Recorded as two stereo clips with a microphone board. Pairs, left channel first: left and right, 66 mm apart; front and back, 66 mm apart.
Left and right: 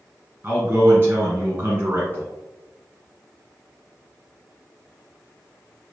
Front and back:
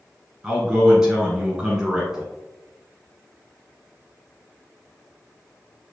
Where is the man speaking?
110° right, 1.5 m.